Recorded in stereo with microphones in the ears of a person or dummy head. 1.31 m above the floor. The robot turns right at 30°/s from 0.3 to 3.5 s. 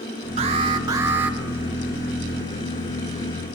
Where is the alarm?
40° right, 1.9 m; by 1.4 s 5° right, 1.9 m.